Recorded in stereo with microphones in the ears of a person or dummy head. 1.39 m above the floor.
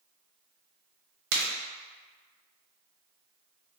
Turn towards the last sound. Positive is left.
turn(degrees=-75)  # may be behind; listen again after turning